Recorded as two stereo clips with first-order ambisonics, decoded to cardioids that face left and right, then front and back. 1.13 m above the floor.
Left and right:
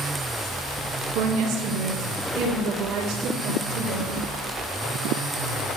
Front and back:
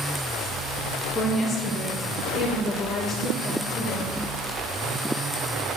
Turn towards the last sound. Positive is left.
turn(degrees=-75)